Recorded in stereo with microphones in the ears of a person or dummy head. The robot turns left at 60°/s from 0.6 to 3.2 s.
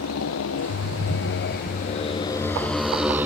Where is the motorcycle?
80° left; by 3.2 s 5° right (ahead or behind).